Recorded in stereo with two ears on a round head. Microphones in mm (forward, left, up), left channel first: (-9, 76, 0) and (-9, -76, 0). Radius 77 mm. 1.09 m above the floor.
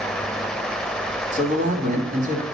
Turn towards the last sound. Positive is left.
turn(degrees=-45)  # may be behind; listen again after turning